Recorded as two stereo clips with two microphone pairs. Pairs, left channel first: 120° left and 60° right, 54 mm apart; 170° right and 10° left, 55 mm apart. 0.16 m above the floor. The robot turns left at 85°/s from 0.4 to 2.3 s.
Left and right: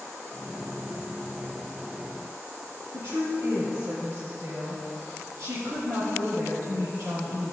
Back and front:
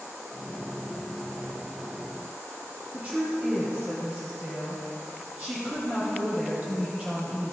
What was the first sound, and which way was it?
A woman speaking, 50° right.